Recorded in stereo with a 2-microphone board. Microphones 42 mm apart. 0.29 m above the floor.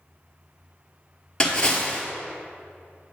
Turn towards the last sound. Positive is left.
turn(degrees=20)  # may be behind; listen again after turning